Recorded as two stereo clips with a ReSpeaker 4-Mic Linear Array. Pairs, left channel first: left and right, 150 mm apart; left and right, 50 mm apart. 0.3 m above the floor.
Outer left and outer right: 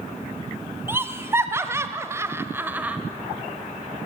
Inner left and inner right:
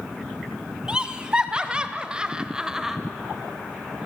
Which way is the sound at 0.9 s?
15° right (ahead or behind).